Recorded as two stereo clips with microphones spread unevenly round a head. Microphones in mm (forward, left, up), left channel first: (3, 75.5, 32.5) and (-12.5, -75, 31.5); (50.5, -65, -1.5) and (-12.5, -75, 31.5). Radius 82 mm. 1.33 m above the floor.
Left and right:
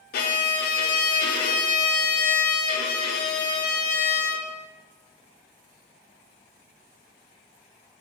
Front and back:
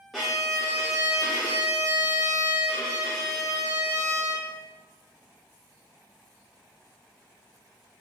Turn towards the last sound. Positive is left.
turn(degrees=110)